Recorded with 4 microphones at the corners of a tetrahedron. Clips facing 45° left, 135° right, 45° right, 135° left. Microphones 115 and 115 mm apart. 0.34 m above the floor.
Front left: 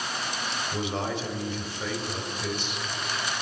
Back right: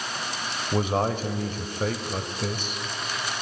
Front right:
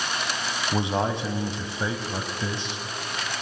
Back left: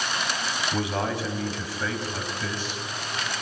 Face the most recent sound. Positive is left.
turn(degrees=-105)